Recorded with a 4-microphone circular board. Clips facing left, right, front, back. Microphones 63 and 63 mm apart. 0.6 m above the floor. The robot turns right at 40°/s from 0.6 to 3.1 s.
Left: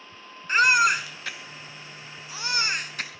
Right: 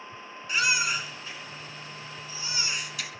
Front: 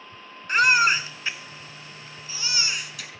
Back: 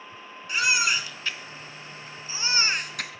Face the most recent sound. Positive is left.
turn(degrees=145)